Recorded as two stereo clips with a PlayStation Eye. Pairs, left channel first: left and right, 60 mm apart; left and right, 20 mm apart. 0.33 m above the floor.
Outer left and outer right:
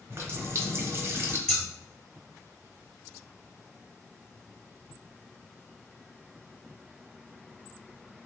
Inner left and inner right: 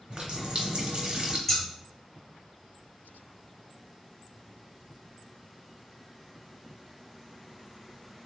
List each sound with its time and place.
0.1 s a running tap: 50° right (ahead or behind), 0.9 m
1.5 s scissors: 10° left (ahead or behind), 2.0 m